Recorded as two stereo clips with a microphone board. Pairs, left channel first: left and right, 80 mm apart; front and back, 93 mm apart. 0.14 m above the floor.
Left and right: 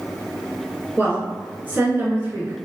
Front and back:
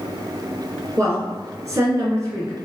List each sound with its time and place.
1.0 s a woman speaking: 145° right, 2.0 m